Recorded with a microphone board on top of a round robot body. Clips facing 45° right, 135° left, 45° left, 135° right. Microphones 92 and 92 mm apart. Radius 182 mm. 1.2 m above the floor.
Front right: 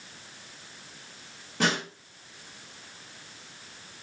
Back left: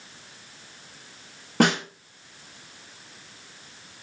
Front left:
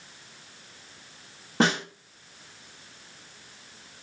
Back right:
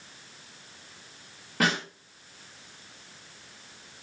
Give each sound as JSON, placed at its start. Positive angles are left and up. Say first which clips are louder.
{"t": 1.6, "sound": "a snare drum", "louder": "back left 6 dB, front left 3 dB", "azimuth_deg": 105, "distance_m": 2.5}